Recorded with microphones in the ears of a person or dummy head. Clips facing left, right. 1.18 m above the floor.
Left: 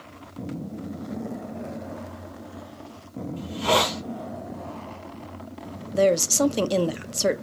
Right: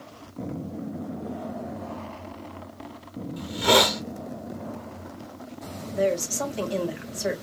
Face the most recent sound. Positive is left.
turn(degrees=55)  # may be behind; listen again after turning